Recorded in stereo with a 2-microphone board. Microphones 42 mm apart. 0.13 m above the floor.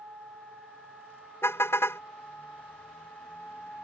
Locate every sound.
1.4 s a car horn: 80° left